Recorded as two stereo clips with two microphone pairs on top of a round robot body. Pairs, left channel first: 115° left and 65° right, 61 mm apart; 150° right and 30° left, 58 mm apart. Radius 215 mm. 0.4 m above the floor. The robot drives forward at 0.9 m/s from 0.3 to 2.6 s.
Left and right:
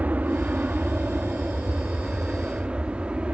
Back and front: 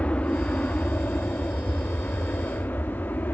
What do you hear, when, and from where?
0.0 s an aircraft: 115° right; by 3.4 s 135° right